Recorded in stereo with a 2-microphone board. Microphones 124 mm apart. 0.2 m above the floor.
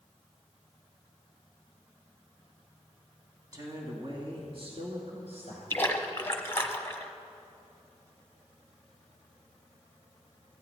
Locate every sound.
3.5 s a woman speaking: 30° right (ahead or behind), 1.7 m; by 5.6 s 60° right (ahead or behind), 3.5 m
5.7 s a splash: 20° left (ahead or behind), 0.9 m